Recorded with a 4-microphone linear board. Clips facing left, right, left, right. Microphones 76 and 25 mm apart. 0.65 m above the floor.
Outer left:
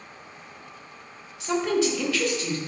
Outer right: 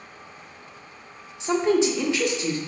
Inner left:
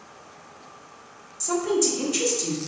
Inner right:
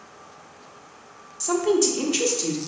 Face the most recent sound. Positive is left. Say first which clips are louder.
# outer right 3 dB, inner right 3 dB
turn(degrees=-25)  # may be behind; listen again after turning